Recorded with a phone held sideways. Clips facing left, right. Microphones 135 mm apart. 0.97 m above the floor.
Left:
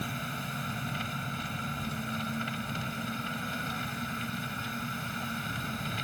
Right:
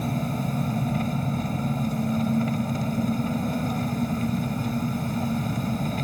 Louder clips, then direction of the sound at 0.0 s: Right 11 dB; 45° right (ahead or behind).